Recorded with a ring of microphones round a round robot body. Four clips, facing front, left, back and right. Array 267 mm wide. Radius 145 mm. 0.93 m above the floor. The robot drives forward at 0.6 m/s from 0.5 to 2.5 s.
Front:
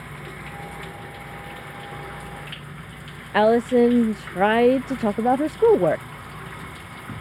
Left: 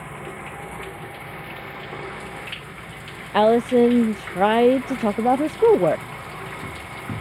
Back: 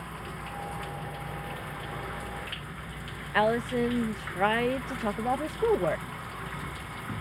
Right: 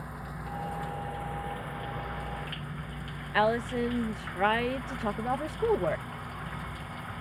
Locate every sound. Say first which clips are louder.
0.0 s running water: left 6 dB, front 2 dB; 80° left; by 7.2 s 90° left
3.3 s a woman speaking: left 11 dB, front 9 dB; 50° left